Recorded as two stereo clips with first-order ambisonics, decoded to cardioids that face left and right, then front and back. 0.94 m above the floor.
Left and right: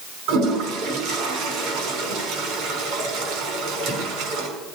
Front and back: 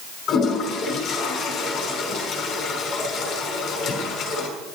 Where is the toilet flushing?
60° right, 5 m.